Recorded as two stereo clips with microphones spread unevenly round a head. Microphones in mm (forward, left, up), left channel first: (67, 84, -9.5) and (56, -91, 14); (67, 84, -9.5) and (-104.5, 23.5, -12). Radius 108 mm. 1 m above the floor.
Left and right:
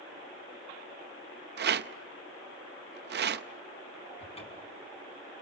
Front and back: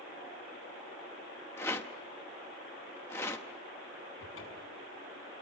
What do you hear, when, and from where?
1.6 s a rattle: 60° right, 0.8 m
4.2 s a cupboard door: 30° left, 5.5 m